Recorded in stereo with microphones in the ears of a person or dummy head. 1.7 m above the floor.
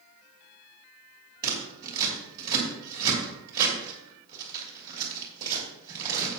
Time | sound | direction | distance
1.4 | scissors | 20° right (ahead or behind) | 2.5 m